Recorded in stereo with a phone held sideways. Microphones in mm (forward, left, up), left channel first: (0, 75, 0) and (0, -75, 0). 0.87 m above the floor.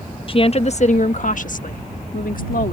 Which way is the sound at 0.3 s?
35° left (ahead or behind).